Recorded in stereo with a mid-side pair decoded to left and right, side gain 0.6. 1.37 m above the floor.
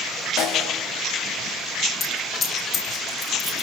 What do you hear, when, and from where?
0.4 s a snare drum: 65° left, 7.5 m
2.0 s a dropped coin: 40° left, 8 m